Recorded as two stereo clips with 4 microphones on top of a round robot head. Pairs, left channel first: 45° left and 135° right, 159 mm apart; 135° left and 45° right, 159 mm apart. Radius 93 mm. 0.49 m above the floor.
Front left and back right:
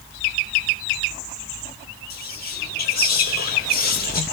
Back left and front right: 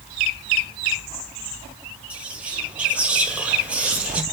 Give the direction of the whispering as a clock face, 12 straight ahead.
11 o'clock.